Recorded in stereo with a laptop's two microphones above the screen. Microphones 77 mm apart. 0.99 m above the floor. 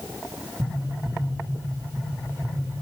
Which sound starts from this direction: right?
Tapping, at 0.6 s.